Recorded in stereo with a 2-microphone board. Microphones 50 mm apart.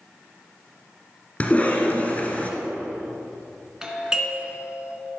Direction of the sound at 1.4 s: 30° left (ahead or behind).